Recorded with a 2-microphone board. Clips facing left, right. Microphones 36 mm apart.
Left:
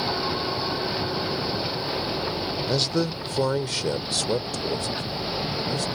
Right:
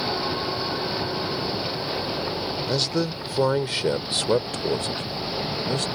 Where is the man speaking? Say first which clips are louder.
Even; centre (ahead or behind); by 5.9 s 55° right (ahead or behind).